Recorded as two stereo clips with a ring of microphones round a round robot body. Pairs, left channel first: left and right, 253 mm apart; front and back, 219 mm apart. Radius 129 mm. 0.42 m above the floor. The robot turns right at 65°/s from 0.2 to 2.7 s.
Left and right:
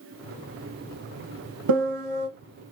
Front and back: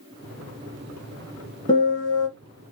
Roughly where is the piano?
Right.